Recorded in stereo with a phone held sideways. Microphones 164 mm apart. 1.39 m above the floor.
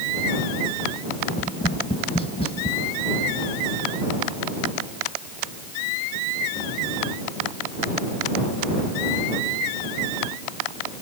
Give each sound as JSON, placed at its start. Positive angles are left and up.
{"t": 1.3, "sound": "tapping", "side_deg": 35}